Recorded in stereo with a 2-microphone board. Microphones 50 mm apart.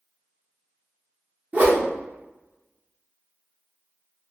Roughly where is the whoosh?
Right.